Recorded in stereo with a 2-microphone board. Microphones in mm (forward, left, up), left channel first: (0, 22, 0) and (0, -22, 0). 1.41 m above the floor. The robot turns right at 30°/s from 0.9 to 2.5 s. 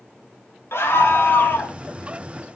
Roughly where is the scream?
Left.